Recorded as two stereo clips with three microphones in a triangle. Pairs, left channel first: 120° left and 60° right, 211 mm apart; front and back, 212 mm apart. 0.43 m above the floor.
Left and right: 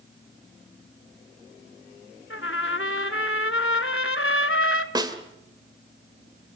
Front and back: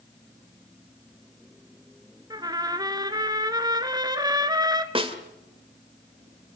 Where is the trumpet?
110° left, 1.1 m.